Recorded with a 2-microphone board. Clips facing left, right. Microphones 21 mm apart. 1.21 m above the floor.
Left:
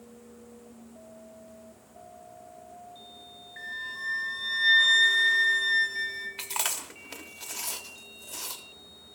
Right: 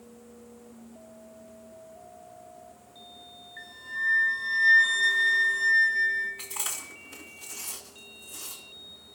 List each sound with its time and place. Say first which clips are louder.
3.6 s a flute: right 2 dB; 55° left (ahead or behind), 2 m
6.4 s chewing: left 4 dB; 65° left (ahead or behind), 1.1 m